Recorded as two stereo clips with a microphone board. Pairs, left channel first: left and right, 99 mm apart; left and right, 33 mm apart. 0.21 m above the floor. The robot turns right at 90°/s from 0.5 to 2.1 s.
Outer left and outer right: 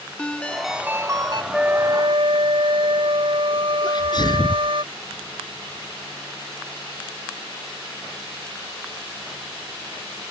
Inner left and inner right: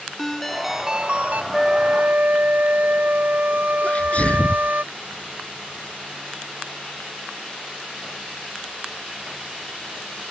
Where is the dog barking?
No dog barking in this recording.